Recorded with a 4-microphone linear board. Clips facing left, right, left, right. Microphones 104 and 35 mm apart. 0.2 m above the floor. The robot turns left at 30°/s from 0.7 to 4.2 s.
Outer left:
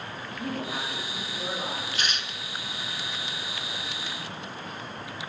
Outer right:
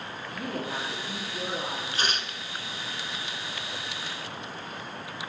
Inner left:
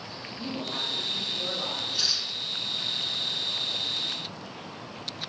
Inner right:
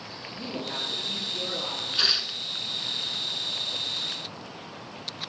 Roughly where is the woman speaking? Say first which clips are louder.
Even, even; right.